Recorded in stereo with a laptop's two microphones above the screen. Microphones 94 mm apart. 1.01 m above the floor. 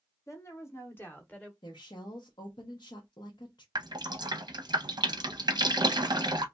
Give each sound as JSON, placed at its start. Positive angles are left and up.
{"t": 0.3, "sound": "a woman speaking", "side_deg": 40, "distance_m": 0.9}
{"t": 1.6, "sound": "a woman speaking", "side_deg": 60, "distance_m": 0.7}
{"t": 3.8, "sound": "dripping", "side_deg": -55, "distance_m": 0.6}